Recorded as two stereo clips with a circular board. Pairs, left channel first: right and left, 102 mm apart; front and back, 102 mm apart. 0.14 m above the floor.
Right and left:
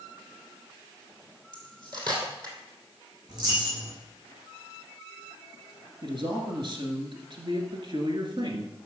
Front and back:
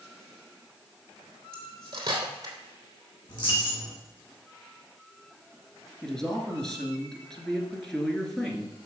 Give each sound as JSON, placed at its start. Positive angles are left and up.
{"t": 1.5, "sound": "cutlery clinking", "azimuth_deg": 135, "distance_m": 2.5}
{"t": 3.3, "sound": "a dropped coin", "azimuth_deg": 45, "distance_m": 5.5}
{"t": 6.0, "sound": "a man speaking", "azimuth_deg": 85, "distance_m": 2.0}